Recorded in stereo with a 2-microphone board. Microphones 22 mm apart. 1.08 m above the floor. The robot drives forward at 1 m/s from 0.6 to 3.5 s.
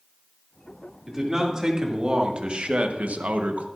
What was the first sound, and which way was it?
A man speaking, 20° right (ahead or behind).